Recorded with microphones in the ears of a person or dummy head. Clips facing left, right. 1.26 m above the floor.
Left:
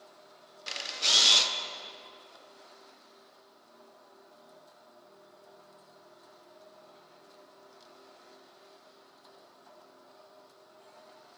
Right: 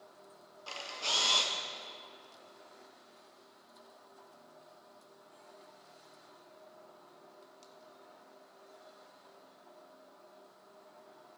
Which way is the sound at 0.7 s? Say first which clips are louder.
Left 2 dB; 20° left (ahead or behind).